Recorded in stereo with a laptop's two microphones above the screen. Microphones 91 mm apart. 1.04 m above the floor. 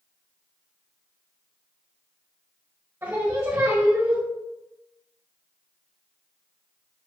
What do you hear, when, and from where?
3.0 s singing: 25° right (ahead or behind), 1.2 m